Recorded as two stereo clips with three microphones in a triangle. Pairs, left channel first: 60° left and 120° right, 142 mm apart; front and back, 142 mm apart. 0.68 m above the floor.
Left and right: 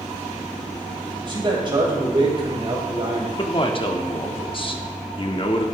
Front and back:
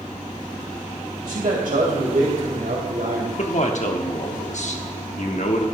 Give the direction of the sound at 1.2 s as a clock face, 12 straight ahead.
6 o'clock.